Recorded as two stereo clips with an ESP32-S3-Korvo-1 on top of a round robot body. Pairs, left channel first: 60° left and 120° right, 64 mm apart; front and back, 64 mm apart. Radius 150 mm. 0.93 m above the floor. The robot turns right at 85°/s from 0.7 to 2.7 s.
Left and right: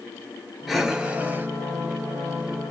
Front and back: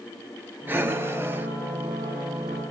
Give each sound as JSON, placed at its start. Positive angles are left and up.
{"t": 0.7, "sound": "breathing", "azimuth_deg": 150, "distance_m": 0.8}